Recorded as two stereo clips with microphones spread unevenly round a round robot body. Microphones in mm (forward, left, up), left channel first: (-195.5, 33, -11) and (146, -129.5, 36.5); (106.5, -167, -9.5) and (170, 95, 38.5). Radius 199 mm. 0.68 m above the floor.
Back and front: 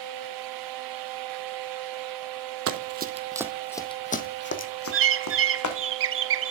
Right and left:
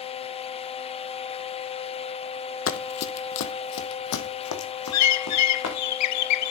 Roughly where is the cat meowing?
I don't hear a cat meowing.